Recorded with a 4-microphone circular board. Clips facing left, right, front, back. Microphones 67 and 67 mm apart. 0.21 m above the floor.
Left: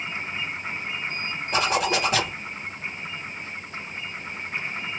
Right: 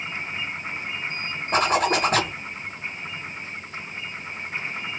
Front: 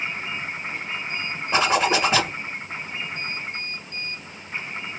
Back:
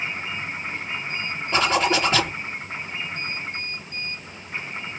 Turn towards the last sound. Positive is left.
turn(degrees=-70)